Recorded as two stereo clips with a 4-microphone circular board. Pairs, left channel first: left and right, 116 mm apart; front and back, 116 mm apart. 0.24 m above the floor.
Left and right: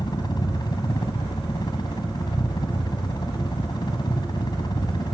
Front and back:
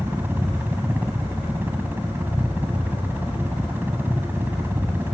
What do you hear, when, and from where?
0.0 s a helicopter: 115° left